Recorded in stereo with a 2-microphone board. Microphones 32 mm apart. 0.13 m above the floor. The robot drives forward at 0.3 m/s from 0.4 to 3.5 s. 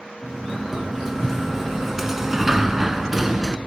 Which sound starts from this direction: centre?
A sliding door, at 0.2 s.